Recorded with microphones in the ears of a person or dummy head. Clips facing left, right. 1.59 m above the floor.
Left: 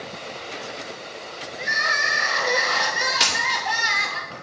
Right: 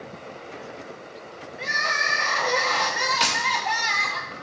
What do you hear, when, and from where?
1.6 s crying: 10° left (ahead or behind), 1.3 m
3.2 s a camera shutter: 25° left (ahead or behind), 2 m